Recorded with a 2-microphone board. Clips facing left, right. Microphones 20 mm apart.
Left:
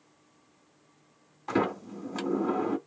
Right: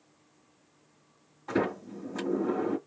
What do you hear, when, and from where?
1.5 s a sliding door: 35° left (ahead or behind), 1.8 m